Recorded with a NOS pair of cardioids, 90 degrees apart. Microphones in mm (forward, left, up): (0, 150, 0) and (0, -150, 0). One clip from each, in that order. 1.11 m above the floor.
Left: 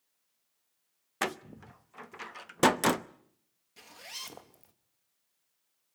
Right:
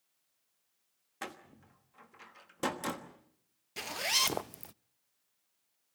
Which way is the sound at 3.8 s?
65° right.